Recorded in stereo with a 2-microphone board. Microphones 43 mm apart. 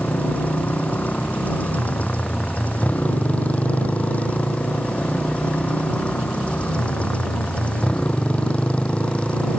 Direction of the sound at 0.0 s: 35° left (ahead or behind).